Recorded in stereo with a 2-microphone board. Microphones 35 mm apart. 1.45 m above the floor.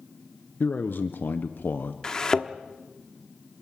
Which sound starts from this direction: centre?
A thud, at 2.0 s.